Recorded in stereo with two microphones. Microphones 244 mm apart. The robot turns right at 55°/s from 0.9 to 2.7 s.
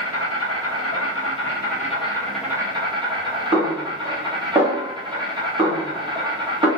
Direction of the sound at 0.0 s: 100° left.